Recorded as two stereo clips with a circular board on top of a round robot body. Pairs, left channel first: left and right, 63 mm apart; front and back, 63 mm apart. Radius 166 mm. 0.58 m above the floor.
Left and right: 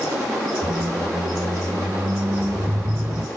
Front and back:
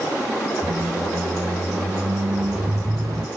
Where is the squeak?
150° right, 0.9 m.